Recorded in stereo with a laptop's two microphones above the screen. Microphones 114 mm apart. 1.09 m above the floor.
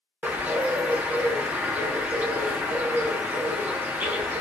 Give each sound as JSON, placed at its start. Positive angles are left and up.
{"t": 0.2, "sound": "a bird", "side_deg": -10, "distance_m": 0.6}